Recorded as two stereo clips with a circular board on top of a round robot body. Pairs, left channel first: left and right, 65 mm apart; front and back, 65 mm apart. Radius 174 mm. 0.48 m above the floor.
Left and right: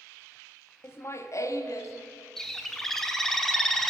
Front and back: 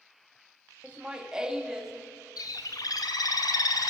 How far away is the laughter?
About 1.0 m.